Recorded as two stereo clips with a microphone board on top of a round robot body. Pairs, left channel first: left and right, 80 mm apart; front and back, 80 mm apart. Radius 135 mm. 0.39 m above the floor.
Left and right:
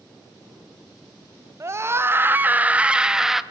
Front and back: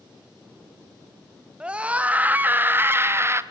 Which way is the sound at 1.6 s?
110° right.